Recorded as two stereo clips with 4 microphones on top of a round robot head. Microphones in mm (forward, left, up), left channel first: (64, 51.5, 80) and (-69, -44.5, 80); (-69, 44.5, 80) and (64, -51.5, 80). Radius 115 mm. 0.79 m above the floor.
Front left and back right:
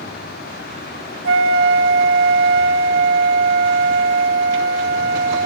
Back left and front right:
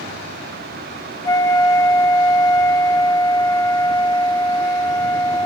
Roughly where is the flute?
Behind right.